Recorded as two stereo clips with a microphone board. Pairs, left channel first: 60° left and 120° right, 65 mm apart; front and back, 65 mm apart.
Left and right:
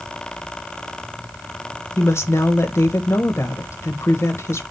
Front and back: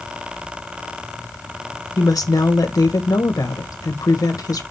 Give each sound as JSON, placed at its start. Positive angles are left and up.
{"t": 2.0, "sound": "a woman speaking", "azimuth_deg": 15, "distance_m": 1.5}